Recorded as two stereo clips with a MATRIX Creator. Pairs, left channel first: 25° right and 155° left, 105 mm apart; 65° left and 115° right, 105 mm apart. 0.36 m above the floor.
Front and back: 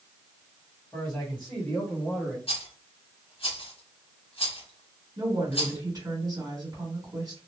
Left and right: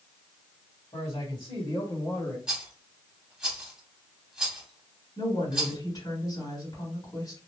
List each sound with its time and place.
0.9 s a man speaking: 55° left, 2.5 m; by 2.4 s 65° left, 1.5 m
2.5 s a rattle: 30° right, 1.4 m
5.2 s a woman speaking: 105° left, 3 m